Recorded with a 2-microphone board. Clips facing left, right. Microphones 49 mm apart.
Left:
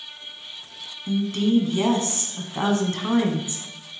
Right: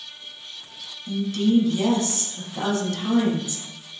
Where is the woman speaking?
30° left (ahead or behind), 1.7 m.